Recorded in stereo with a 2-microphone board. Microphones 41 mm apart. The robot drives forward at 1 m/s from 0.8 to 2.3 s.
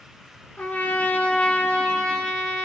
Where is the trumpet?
45° left (ahead or behind), 1.1 m; by 2.6 s 20° left (ahead or behind), 2 m.